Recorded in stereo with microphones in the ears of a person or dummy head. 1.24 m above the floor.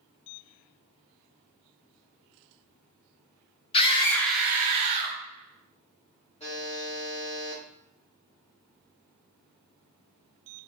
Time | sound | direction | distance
3.7 | a scream | 35° left (ahead or behind) | 0.6 m
6.4 | a buzzer | 30° left (ahead or behind) | 1.2 m